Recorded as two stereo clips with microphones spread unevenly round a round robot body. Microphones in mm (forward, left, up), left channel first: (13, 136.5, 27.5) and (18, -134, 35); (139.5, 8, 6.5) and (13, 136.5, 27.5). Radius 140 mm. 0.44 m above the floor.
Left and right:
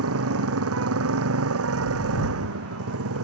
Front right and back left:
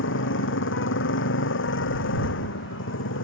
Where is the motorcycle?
50° right.